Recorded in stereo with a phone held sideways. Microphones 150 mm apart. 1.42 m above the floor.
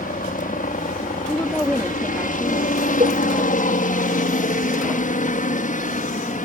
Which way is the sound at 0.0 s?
65° left (ahead or behind).